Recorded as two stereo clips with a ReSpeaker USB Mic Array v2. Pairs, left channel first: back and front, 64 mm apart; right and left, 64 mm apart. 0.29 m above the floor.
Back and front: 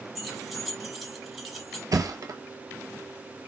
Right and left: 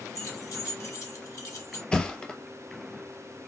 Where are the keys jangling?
90° right, 1.0 m.